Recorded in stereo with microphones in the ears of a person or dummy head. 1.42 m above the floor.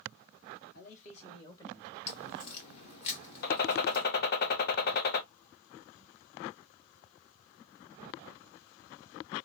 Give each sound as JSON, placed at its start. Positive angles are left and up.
{"t": 0.7, "sound": "a man speaking", "side_deg": 50, "distance_m": 1.2}
{"t": 2.1, "sound": "a crack", "side_deg": 35, "distance_m": 1.1}
{"t": 3.4, "sound": "a gunshot", "side_deg": 50, "distance_m": 0.6}